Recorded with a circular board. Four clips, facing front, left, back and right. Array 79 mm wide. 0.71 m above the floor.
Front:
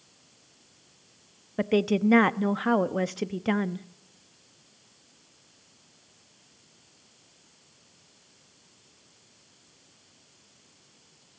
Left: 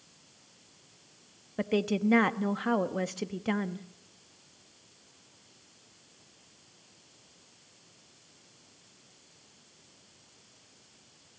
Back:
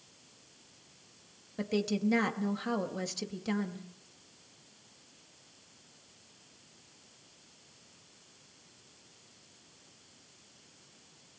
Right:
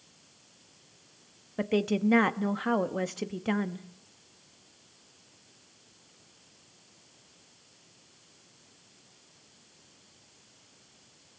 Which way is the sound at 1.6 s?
5° right.